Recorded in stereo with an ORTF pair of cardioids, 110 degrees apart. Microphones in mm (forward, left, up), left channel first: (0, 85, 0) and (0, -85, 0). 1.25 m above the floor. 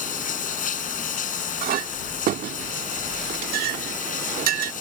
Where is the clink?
60° right.